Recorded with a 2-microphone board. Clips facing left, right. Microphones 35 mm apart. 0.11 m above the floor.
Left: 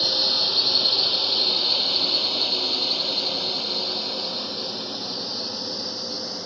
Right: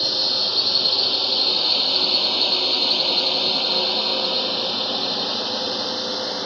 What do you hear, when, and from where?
0.0 s a drone: centre (ahead or behind); by 6.5 s 70° right (ahead or behind)